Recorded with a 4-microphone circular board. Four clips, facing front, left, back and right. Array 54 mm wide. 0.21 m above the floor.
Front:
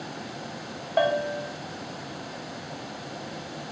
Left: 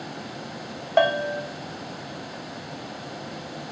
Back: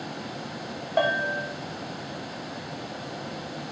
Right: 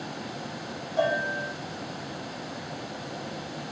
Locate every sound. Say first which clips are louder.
1.0 s a bell: left 5 dB, even; 90° left, 0.8 m